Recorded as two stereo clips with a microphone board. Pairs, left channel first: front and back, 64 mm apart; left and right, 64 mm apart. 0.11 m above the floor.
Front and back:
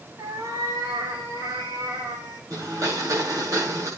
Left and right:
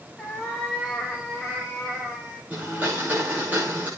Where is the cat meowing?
170° left, 6 m; by 2.4 s 165° right, 5 m.